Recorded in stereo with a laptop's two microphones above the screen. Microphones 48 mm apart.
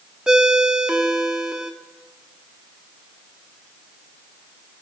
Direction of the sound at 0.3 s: 15° right (ahead or behind).